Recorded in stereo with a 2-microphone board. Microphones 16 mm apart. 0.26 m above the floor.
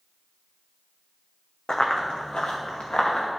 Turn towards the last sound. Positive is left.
turn(degrees=85)